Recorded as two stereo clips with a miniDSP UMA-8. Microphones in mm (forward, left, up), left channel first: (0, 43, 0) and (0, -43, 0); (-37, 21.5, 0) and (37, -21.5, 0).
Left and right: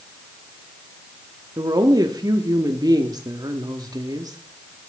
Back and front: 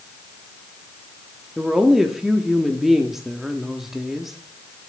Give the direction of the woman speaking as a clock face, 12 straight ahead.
4 o'clock.